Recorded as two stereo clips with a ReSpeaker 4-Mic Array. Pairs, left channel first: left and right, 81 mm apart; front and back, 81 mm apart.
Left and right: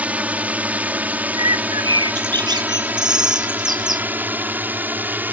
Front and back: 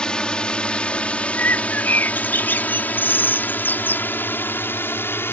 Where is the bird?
65° right.